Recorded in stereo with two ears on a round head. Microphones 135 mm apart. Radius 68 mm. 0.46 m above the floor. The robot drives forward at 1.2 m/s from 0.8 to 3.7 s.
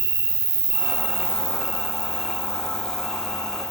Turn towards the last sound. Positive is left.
turn(degrees=-5)  # may be behind; listen again after turning